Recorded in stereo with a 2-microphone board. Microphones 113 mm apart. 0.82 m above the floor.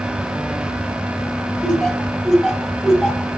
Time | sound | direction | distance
1.6 | laughter | centre (ahead or behind) | 4 m